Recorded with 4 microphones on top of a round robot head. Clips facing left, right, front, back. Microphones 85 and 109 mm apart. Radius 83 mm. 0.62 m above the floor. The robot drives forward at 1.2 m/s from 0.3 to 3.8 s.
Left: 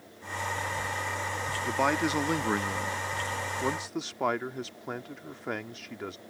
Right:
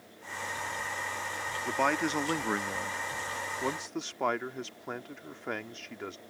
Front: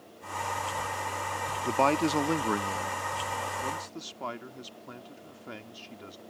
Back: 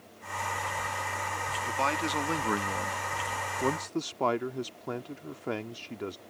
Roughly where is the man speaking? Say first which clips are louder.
Left 1 dB, front 6 dB; ahead.